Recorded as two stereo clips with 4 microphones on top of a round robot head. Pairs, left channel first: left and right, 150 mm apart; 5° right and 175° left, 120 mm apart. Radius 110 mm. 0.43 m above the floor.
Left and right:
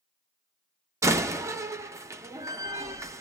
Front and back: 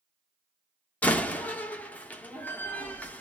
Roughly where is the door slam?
Ahead right.